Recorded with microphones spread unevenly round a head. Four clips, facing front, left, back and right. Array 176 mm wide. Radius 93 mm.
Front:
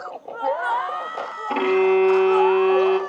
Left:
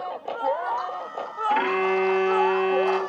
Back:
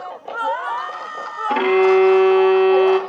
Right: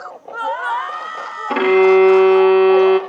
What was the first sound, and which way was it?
A violin, 105° right.